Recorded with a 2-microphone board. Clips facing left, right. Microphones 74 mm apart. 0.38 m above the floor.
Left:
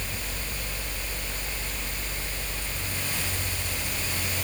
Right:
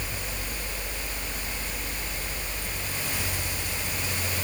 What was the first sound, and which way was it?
Only background noise.